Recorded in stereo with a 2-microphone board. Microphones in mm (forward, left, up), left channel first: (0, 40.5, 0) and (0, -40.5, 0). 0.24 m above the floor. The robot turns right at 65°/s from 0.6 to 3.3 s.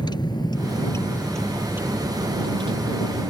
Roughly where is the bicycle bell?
No bicycle bell in this recording.